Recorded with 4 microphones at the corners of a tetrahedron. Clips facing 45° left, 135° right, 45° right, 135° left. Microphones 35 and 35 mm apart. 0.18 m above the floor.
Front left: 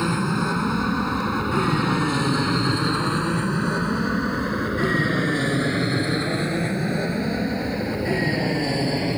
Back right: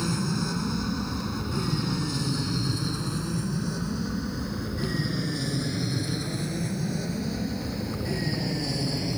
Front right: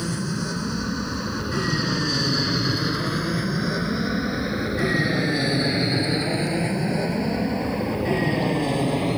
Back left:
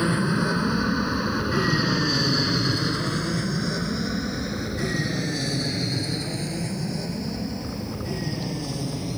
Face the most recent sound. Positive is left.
turn(degrees=-5)